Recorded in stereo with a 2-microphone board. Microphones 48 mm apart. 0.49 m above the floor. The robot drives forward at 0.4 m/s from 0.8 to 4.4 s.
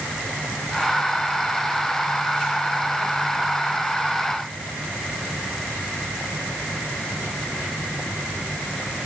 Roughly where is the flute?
No flute in this recording.